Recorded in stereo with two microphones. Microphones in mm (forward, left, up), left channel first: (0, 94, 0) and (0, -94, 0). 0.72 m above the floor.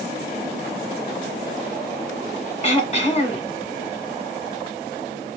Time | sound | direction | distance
2.6 | throat clearing | 35° left (ahead or behind) | 2 m